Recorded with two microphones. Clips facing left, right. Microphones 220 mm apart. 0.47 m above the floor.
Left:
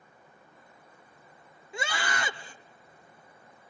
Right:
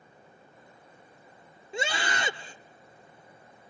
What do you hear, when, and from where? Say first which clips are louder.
1.7 s a scream: right 2 dB; 25° right (ahead or behind), 1.3 m